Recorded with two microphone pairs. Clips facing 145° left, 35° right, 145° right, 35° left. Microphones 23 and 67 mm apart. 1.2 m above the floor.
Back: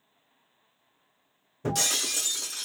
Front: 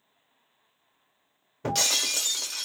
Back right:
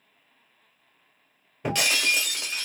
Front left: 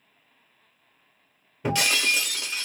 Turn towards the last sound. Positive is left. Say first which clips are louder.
# front 2 dB, front left 1 dB
turn(degrees=-60)